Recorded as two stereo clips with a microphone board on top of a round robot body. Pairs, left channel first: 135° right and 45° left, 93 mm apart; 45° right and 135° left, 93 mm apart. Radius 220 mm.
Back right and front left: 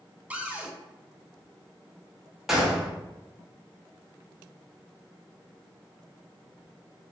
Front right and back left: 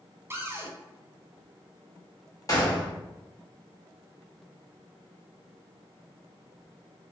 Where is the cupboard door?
105° left, 0.8 m.